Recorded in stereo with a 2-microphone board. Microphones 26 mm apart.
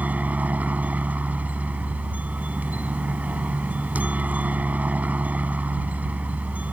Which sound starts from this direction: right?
A helicopter, at 0.0 s.